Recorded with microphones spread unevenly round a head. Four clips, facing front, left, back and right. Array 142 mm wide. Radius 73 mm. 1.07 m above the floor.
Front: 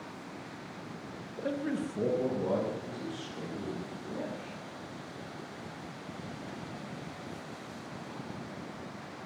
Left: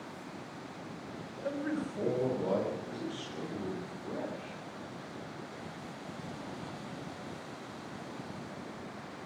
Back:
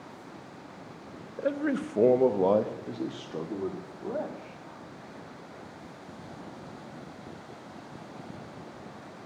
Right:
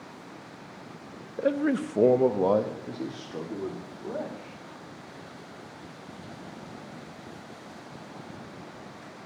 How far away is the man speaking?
About 0.8 m.